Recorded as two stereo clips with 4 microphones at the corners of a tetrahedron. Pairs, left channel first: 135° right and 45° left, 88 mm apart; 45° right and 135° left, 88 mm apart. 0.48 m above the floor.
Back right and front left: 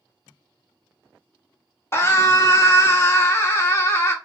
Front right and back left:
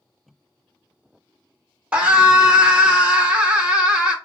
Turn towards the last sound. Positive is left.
turn(degrees=-160)